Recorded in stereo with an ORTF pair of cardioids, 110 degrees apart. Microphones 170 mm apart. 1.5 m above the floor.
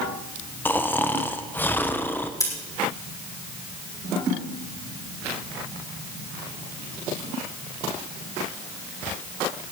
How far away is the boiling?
I don't hear boiling.